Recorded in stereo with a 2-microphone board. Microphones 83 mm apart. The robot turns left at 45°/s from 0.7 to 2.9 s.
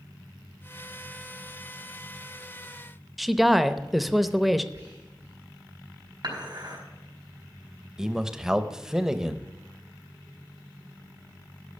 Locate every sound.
3.2 s a woman speaking: centre (ahead or behind), 0.6 m
4.7 s whispering: 40° right (ahead or behind), 2.5 m
6.2 s dishes clattering: 55° right (ahead or behind), 4.5 m
8.0 s a man speaking: 10° right (ahead or behind), 0.8 m